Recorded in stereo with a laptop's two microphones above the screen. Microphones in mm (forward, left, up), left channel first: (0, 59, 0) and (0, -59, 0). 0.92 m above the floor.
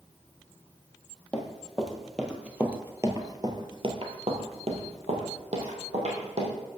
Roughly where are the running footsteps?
Centre.